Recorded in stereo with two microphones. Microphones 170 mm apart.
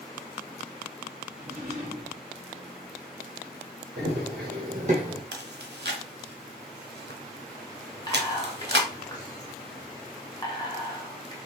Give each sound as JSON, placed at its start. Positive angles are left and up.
{"t": 1.3, "sound": "a drawer", "side_deg": -60, "distance_m": 2.0}
{"t": 4.0, "sound": "running footsteps", "side_deg": -75, "distance_m": 2.0}
{"t": 5.3, "sound": "chewing", "side_deg": -85, "distance_m": 0.8}
{"t": 8.1, "sound": "whispering", "side_deg": 25, "distance_m": 1.8}